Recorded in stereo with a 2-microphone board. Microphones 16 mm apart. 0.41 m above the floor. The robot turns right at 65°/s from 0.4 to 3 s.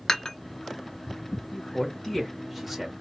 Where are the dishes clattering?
40° left (ahead or behind), 1.0 m.